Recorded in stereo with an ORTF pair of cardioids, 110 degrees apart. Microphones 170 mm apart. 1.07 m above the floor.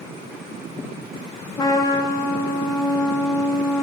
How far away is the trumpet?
About 1.2 m.